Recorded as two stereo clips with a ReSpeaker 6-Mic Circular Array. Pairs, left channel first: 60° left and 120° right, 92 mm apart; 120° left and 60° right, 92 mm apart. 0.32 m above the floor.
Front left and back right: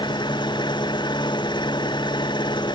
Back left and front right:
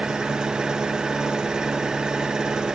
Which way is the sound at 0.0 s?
20° left.